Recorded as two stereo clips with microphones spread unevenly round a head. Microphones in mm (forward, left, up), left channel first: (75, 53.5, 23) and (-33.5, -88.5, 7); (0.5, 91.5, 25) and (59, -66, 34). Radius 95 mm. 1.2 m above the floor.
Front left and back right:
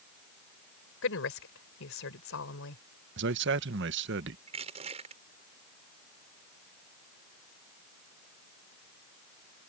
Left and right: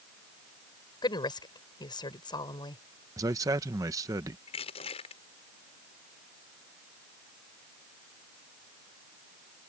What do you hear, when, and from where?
1.0 s a woman speaking: 45° left
3.2 s a man speaking: 145° right
4.5 s crushing: 170° left